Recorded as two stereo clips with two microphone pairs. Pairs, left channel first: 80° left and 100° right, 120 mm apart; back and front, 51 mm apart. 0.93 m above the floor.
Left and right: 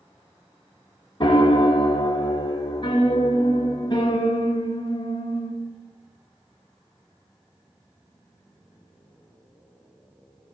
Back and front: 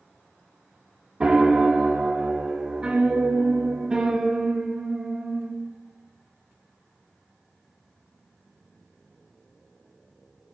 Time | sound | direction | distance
1.2 | a piano | 65° left | 1.1 m